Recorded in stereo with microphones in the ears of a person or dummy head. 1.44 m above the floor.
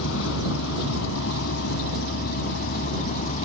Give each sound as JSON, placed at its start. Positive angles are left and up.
{"t": 0.0, "sound": "a vehicle", "side_deg": 90}